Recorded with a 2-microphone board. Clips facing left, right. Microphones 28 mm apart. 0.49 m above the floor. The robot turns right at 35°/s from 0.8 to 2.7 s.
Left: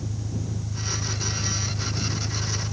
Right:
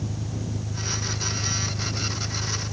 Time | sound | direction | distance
0.0 | an engine running | 75° right | ?